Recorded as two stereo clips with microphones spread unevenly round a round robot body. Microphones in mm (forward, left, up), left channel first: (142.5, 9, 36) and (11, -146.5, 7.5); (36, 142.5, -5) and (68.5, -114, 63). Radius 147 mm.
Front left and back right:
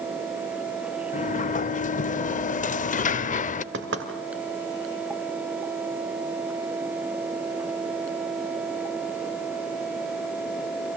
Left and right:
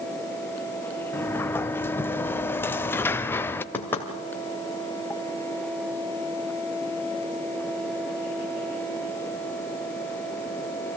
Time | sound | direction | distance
1.1 | a sliding door | 5° left | 0.6 m
3.7 | knocking | straight behind | 1.5 m